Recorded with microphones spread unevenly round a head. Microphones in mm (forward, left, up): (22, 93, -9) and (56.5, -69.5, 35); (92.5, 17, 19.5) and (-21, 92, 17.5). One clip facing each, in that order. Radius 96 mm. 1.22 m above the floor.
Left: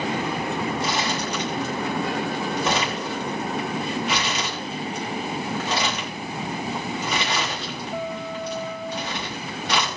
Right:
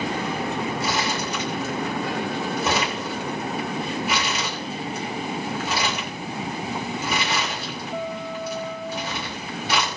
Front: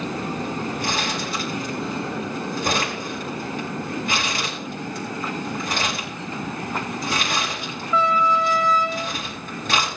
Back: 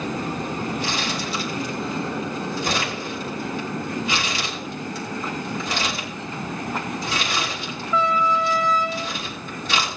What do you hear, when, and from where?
0.8 s crumpling: 5° left, 6.5 m